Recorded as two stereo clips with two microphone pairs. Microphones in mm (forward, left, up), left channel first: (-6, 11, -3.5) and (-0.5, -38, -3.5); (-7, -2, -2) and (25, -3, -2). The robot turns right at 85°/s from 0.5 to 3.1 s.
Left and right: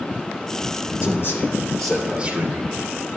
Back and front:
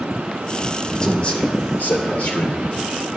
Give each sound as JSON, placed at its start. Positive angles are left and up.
{"t": 1.0, "sound": "a man speaking", "azimuth_deg": 105, "distance_m": 2.5}